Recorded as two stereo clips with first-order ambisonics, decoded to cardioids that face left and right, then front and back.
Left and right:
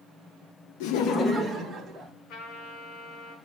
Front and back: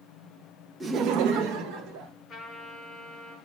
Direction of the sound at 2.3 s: 60° left.